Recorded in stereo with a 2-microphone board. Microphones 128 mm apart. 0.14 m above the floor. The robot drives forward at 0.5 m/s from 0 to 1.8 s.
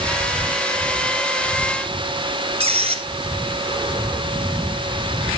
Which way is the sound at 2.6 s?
50° right (ahead or behind).